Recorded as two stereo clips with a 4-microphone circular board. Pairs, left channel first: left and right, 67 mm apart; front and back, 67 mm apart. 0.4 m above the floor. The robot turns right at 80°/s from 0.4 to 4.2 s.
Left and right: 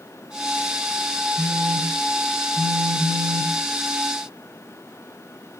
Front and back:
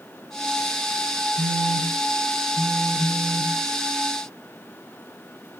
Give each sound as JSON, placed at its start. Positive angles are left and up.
{"t": 1.4, "sound": "a phone buzzing", "azimuth_deg": 80, "distance_m": 1.1}